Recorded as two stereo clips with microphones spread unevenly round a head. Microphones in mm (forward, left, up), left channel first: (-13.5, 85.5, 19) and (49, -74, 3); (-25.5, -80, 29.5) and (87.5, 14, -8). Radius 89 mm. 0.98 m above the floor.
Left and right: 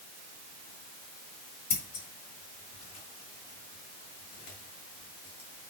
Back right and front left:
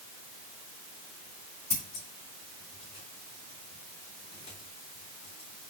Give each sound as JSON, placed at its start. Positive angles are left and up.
{"t": 1.7, "sound": "scissors", "azimuth_deg": 155, "distance_m": 3.0}